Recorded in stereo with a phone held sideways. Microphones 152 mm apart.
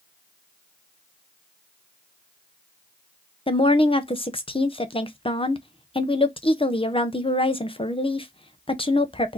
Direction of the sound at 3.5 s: 35° left (ahead or behind).